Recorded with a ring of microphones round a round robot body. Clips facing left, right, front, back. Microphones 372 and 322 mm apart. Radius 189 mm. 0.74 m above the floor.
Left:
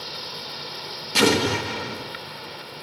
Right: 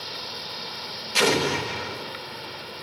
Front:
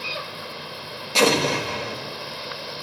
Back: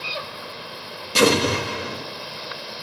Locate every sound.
1.1 s an explosion: 115° left, 1.6 m